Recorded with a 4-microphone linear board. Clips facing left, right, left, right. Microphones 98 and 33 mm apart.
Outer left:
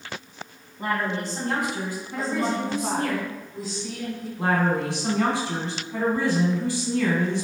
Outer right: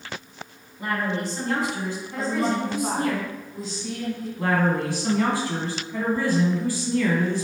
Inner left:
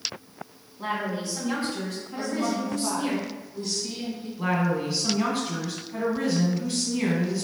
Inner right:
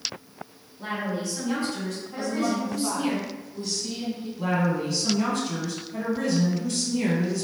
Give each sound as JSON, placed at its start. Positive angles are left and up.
{"t": 0.8, "sound": "a woman speaking", "side_deg": 30, "distance_m": 1.8}
{"t": 2.2, "sound": "a woman speaking", "side_deg": 5, "distance_m": 1.7}
{"t": 4.4, "sound": "a woman speaking", "side_deg": 20, "distance_m": 1.5}